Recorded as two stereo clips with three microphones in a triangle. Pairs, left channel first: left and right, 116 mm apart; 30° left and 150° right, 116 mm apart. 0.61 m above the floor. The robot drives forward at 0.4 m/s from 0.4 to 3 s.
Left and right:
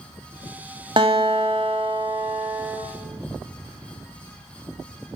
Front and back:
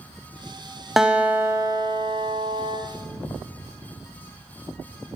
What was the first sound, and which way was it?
A guitar, 65° right.